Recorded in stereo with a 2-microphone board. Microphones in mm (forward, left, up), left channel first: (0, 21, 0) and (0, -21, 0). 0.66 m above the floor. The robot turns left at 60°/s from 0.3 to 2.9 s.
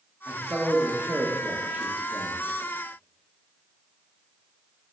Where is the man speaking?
25° right (ahead or behind), 1.3 m; by 2.4 s 10° right (ahead or behind), 1.3 m.